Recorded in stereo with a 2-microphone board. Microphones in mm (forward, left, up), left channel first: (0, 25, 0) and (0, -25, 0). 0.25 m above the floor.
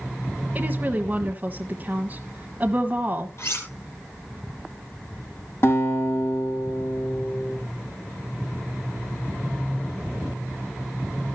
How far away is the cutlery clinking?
About 3 m.